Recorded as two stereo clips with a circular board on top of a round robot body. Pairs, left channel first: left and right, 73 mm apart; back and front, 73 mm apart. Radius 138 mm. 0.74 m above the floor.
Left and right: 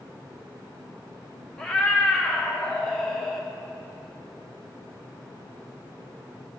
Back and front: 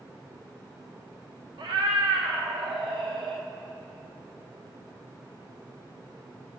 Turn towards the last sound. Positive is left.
turn(degrees=10)